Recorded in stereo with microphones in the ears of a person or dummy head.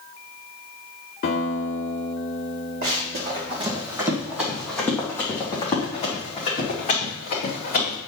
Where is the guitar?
40° left (ahead or behind), 2 m.